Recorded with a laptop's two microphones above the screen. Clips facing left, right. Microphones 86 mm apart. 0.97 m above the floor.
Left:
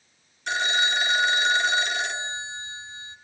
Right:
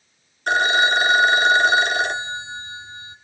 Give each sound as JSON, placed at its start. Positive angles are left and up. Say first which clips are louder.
{"t": 0.5, "sound": "a phone ringing", "louder": "right 8 dB", "side_deg": -55, "distance_m": 1.3}